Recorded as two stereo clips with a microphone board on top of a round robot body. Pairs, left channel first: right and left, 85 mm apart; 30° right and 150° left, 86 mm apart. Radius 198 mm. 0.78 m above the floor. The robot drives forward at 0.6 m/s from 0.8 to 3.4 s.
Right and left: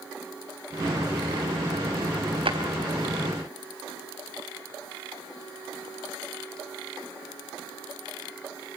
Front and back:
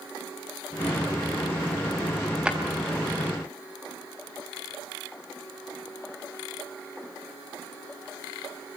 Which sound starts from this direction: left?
A drawer, at 2.5 s.